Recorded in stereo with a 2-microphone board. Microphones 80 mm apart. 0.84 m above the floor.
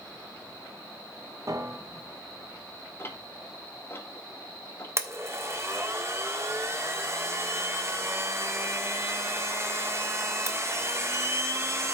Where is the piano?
45° right (ahead or behind), 1.2 m.